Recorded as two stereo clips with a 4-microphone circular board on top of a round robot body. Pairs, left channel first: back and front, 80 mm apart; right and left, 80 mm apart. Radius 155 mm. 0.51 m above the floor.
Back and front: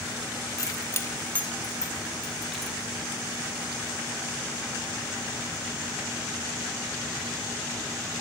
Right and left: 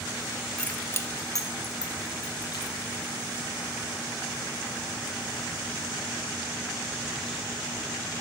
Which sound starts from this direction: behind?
Keys jangling, at 0.6 s.